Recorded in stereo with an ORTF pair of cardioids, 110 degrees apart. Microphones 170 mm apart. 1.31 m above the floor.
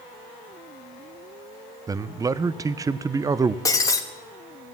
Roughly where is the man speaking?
Ahead.